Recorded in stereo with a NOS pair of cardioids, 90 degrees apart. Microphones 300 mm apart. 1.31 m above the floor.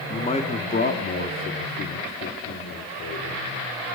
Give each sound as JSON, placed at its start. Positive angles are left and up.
{"t": 0.1, "sound": "a man speaking", "azimuth_deg": 15, "distance_m": 2.5}